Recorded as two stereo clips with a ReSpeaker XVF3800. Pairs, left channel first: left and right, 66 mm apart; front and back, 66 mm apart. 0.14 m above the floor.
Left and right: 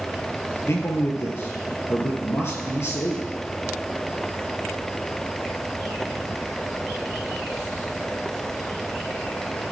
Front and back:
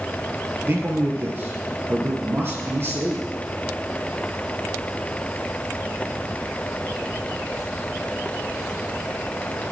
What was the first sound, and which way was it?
A man speaking, 130° left.